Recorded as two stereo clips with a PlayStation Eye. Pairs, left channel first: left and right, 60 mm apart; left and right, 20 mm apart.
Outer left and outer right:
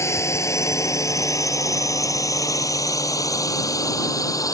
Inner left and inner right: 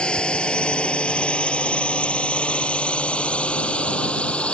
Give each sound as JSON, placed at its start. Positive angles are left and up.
{"t": 0.0, "sound": "a drone", "side_deg": 50}